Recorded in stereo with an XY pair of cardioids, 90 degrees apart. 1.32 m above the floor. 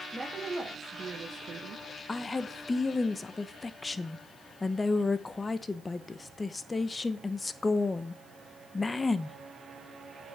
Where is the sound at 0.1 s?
15° right, 3 m; by 1.9 s 70° right, 1.5 m.